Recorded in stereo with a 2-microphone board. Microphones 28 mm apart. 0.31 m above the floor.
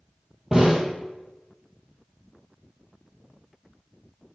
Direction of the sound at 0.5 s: 15° right (ahead or behind).